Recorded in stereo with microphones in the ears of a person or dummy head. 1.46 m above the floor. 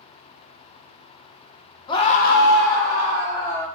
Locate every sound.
1.9 s a scream: 25° left (ahead or behind), 0.8 m; by 3.7 s 30° left (ahead or behind), 1.6 m